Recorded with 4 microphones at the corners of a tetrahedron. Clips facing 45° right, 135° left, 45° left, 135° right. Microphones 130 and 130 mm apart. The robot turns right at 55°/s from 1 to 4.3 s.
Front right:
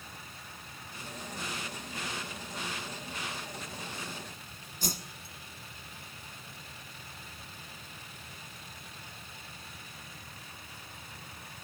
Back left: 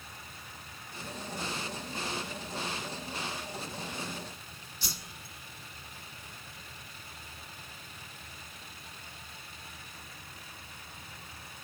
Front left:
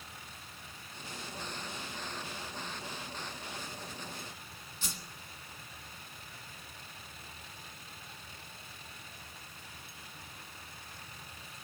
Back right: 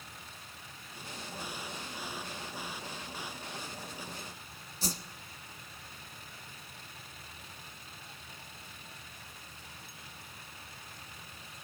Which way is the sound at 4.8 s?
85° right.